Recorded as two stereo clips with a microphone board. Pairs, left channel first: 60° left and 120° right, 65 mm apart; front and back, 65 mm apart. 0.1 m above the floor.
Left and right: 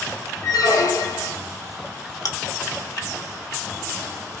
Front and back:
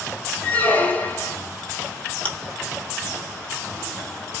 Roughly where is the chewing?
Left.